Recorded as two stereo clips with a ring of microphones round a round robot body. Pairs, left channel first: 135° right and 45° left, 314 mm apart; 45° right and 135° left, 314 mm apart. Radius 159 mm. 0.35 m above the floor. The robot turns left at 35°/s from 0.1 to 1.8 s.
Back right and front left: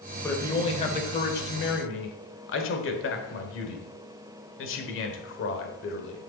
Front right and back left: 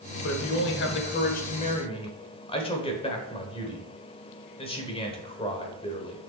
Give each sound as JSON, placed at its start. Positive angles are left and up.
{"t": 0.2, "sound": "a man speaking", "azimuth_deg": -55, "distance_m": 1.2}